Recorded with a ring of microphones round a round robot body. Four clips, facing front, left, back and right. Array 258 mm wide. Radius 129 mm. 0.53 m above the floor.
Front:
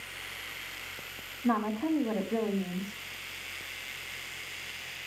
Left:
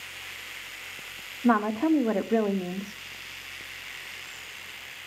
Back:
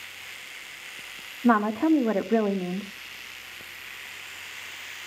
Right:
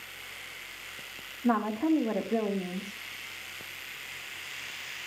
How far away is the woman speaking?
About 1.3 m.